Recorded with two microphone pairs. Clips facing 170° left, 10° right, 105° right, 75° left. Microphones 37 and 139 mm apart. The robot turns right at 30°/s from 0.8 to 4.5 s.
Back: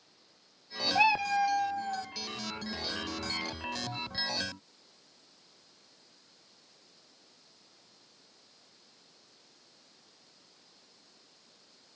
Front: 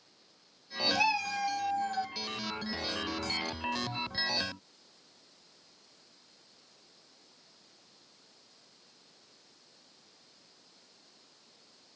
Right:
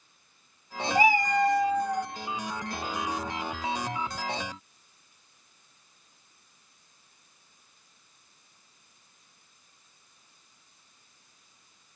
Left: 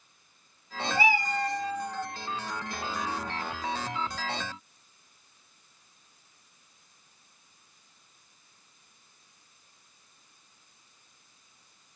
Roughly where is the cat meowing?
Behind right.